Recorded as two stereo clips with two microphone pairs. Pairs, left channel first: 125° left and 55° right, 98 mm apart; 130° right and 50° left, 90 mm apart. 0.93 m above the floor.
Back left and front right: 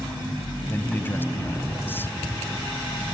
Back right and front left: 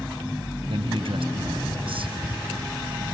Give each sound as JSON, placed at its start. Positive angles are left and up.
{"t": 0.7, "sound": "a man speaking", "azimuth_deg": 55}